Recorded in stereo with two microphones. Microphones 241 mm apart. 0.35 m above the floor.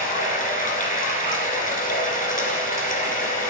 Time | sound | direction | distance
0.0 | running water | 35° left (ahead or behind) | 1.4 m